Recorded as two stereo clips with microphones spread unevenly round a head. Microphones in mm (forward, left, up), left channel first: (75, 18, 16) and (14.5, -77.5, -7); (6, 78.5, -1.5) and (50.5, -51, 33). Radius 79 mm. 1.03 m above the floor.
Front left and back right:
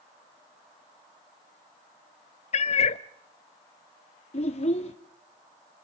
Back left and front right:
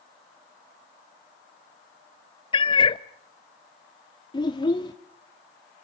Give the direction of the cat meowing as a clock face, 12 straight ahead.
10 o'clock.